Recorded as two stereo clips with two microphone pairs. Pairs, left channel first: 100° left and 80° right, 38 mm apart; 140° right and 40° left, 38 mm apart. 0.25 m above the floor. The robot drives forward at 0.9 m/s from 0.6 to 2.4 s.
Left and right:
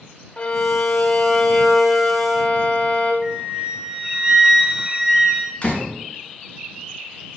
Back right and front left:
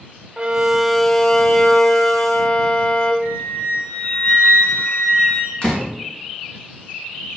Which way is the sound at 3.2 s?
145° right.